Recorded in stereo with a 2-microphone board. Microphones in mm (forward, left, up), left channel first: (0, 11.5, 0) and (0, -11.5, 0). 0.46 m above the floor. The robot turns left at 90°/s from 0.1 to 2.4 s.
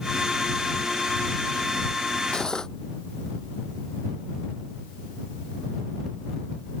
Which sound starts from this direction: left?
Cutlery clinking, at 2.3 s.